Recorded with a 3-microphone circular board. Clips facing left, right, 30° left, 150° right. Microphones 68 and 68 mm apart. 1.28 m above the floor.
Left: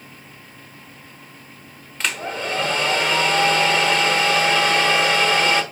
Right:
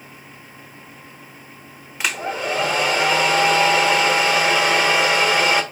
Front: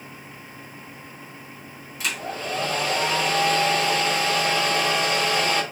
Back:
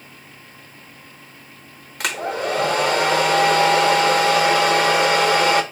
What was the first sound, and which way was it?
A hair dryer, 170° right.